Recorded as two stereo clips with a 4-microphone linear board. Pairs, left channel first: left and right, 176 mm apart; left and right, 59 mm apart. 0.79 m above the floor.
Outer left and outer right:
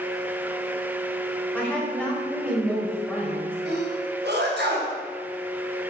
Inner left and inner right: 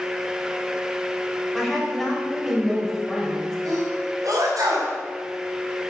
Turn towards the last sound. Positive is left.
turn(degrees=-75)  # may be behind; listen again after turning